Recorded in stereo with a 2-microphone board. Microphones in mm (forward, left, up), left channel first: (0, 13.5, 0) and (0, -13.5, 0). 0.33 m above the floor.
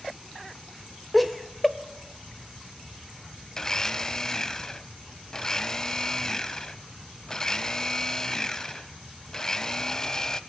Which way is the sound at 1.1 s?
Centre (ahead or behind).